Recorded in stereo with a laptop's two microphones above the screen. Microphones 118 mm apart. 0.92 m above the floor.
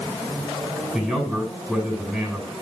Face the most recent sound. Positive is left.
turn(degrees=-5)  # may be behind; listen again after turning